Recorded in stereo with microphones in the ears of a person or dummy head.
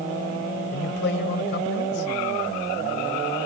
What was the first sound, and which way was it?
A man speaking, 65° left (ahead or behind).